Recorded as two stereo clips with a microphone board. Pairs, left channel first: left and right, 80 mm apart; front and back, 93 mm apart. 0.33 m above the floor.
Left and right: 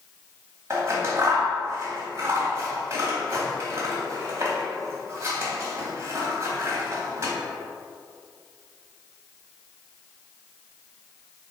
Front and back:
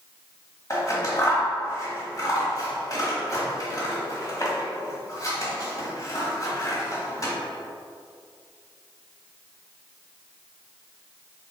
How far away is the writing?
I don't hear writing.